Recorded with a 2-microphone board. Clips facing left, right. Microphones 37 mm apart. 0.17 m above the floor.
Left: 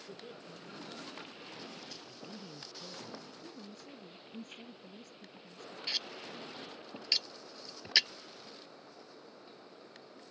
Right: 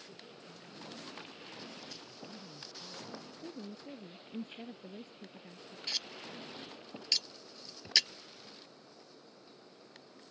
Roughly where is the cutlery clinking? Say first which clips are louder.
Left 1 dB; centre.